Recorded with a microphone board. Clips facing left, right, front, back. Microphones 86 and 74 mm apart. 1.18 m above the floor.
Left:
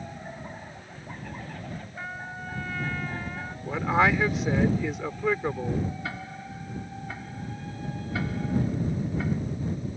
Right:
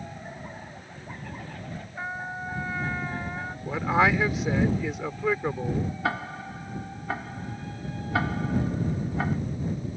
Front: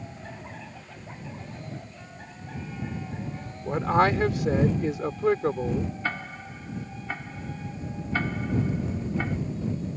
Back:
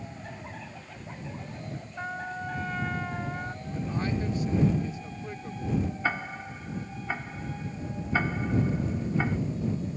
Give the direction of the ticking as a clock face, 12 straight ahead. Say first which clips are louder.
Right 6 dB, back 2 dB; 3 o'clock.